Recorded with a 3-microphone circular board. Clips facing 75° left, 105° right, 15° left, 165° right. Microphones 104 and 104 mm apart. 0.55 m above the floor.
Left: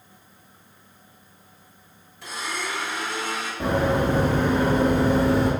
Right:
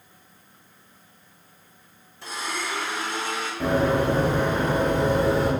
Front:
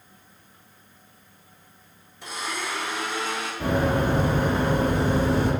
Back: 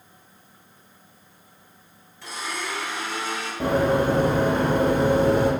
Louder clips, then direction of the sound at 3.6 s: Right 1 dB, back 3 dB; 145° left.